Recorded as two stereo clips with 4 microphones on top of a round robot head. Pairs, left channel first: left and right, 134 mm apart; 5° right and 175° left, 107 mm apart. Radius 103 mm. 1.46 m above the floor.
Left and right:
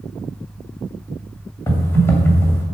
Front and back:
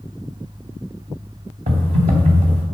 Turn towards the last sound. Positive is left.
turn(degrees=160)